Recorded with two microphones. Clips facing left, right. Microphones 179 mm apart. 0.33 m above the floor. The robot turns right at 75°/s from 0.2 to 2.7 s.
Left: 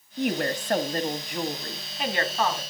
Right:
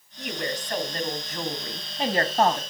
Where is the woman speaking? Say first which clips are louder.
Left 5 dB; 80° left, 2 m; by 2.6 s 100° right, 2 m.